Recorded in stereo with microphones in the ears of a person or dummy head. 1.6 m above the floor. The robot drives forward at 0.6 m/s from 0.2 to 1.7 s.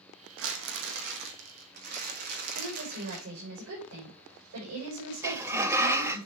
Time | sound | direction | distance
0.4 | crumpling | 70° right (ahead or behind) | 1.6 m
2.5 | a woman speaking | 70° right (ahead or behind) | 6 m
5.2 | a sliding door | 20° right (ahead or behind) | 1.0 m